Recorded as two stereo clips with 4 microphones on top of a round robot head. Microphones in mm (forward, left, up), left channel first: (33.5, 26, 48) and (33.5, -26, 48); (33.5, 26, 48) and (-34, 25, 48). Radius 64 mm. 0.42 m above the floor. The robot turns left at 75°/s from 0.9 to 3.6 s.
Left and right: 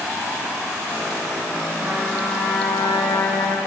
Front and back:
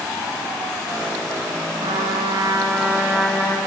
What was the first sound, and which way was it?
A trumpet, 155° right.